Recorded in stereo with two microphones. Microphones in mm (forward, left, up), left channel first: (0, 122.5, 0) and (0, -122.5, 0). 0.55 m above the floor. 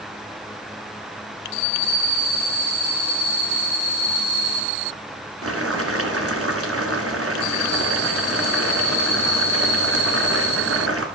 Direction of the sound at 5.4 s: 70° right (ahead or behind).